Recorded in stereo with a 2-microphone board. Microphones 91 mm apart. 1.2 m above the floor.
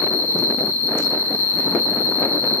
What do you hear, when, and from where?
0.0 s an insect: 20° left (ahead or behind), 1.0 m